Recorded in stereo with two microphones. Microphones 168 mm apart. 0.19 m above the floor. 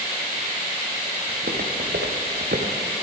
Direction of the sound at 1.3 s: 60° right (ahead or behind).